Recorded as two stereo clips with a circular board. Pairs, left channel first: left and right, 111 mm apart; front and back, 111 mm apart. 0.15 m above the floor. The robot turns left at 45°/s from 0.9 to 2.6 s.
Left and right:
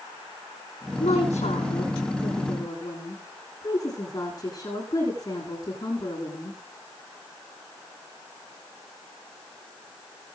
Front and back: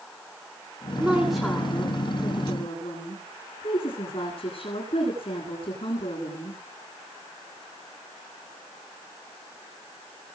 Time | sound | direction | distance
1.0 | a woman speaking | 105° left | 8.5 m